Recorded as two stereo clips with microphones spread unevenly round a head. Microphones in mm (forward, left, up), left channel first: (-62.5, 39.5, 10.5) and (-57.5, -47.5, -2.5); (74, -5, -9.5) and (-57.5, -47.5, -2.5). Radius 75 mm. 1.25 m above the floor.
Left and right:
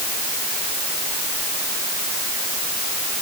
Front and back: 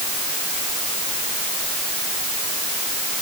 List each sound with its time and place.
Only background noise.